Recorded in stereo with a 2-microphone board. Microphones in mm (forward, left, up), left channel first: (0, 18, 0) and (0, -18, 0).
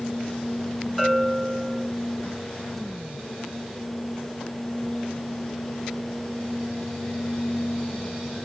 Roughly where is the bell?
Centre.